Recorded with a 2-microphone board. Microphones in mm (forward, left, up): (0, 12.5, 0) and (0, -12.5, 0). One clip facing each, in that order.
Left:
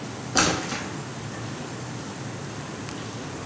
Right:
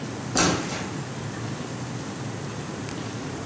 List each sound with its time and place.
0.3 s a splash: 30° left (ahead or behind), 0.9 m